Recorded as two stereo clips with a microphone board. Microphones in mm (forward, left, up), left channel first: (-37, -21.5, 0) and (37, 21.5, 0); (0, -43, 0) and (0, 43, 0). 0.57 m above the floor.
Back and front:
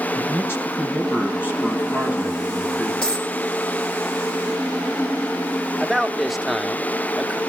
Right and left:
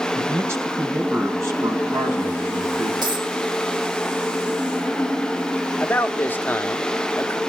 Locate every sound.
0.1 s a man speaking: 150° left, 4.5 m; by 2.9 s 135° left, 6.5 m
3.0 s a dropped coin: 130° left, 7 m
5.8 s a man speaking: 60° right, 0.9 m